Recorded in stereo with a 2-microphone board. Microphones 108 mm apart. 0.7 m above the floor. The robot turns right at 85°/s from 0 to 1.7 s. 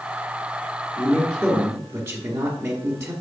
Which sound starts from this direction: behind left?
A man speaking, at 1.0 s.